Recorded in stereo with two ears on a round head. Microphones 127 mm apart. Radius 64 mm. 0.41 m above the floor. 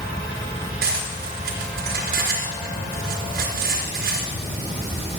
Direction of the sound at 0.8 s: 75° right (ahead or behind).